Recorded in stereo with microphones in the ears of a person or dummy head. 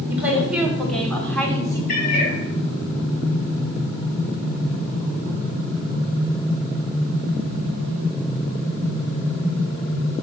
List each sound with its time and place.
0.1 s a woman speaking: 10° right (ahead or behind), 3 m; by 1.8 s 15° left (ahead or behind), 2.5 m
1.9 s a cat meowing: 55° left (ahead or behind), 2.5 m